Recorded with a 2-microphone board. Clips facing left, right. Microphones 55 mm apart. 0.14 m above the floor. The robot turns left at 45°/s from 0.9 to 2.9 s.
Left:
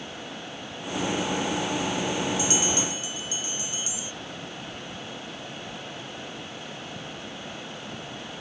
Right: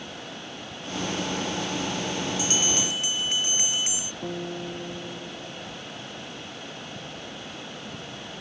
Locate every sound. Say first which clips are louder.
2.4 s a bell: left 1 dB; 40° right (ahead or behind); by 4.1 s 60° right (ahead or behind)
4.2 s a guitar: right 6 dB; 85° right